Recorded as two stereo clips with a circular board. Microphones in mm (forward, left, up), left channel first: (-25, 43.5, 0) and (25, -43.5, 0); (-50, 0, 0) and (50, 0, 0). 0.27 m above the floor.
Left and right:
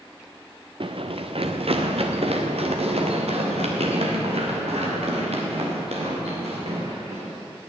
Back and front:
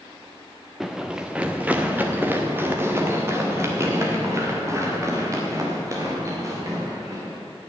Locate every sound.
0.8 s running footsteps: 90° right, 1.3 m; by 7.4 s 60° right, 5.5 m